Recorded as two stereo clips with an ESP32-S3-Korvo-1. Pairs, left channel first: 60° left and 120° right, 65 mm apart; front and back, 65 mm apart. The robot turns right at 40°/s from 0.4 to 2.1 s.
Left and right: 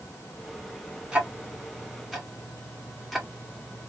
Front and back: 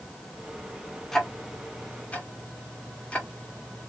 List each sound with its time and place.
1.1 s ticking: 75° right, 1.2 m; by 3.9 s 35° right, 1.2 m